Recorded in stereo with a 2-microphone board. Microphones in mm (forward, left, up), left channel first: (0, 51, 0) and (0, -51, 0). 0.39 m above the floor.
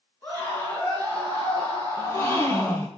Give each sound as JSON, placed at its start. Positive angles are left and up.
{"t": 0.2, "sound": "a scream", "side_deg": 25, "distance_m": 5.5}
{"t": 2.0, "sound": "a gasp", "side_deg": 30, "distance_m": 2.5}